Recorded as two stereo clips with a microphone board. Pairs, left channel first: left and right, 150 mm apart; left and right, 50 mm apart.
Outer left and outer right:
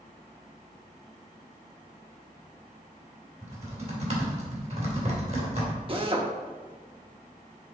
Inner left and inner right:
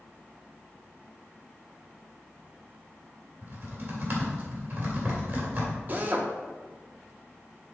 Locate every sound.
3.4 s typing on a keyboard: 50° right (ahead or behind), 2.5 m
5.9 s a drill: 35° right (ahead or behind), 0.9 m